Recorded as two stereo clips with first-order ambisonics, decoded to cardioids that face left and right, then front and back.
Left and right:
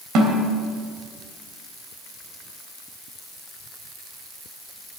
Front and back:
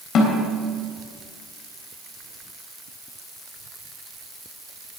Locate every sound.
0.1 s a snare drum: 50° right, 3 m